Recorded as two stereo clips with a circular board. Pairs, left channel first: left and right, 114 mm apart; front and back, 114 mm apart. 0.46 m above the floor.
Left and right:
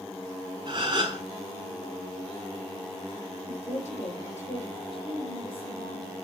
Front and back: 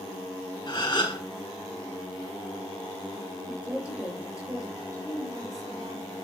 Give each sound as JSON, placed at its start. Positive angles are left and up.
{"t": 0.7, "sound": "a gasp", "azimuth_deg": -45, "distance_m": 4.0}
{"t": 3.5, "sound": "a woman speaking", "azimuth_deg": 100, "distance_m": 7.0}
{"t": 4.9, "sound": "a woman speaking", "azimuth_deg": 120, "distance_m": 4.5}